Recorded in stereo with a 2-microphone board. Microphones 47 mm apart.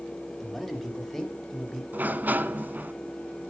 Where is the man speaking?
5° left (ahead or behind), 1.9 m; by 1.8 s 10° left (ahead or behind), 3 m.